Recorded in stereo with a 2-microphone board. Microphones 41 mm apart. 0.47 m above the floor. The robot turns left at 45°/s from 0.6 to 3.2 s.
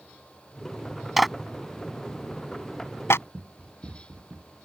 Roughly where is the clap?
Centre.